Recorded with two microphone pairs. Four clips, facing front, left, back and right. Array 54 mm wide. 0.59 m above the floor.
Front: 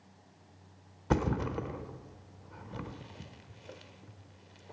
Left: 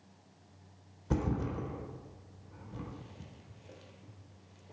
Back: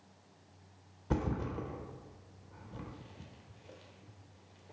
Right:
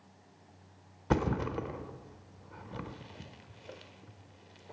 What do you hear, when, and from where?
1.1 s a thud: 45° right, 1.0 m